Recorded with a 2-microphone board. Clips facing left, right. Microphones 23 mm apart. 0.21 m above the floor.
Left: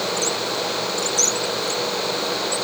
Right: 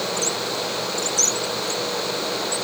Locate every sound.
Only background noise.